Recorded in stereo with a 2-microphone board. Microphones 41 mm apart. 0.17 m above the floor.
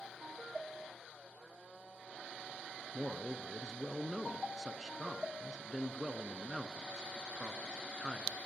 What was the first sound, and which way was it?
A man speaking, 15° right (ahead or behind).